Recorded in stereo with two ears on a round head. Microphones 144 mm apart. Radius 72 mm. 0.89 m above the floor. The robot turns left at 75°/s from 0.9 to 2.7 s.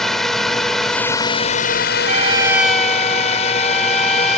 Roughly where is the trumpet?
Behind right.